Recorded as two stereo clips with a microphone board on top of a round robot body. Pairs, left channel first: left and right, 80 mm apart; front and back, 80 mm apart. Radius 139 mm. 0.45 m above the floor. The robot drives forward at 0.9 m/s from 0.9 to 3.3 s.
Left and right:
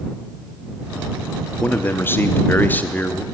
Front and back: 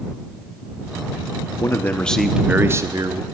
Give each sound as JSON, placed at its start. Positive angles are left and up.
{"t": 1.6, "sound": "a man speaking", "azimuth_deg": 30, "distance_m": 1.0}